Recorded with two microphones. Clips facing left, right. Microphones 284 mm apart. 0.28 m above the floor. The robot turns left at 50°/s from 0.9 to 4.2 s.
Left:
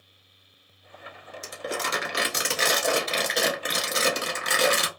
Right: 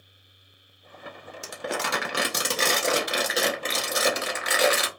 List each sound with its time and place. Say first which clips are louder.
1.4 s crumpling: right 1 dB; 80° right, 0.8 m; by 4.9 s 140° left, 0.8 m